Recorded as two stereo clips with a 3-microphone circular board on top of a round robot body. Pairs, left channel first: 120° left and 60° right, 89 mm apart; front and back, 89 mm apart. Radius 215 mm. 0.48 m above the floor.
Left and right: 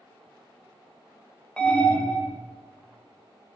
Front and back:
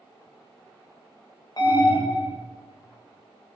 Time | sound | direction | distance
1.6 | an alarm | 40° left | 3.5 m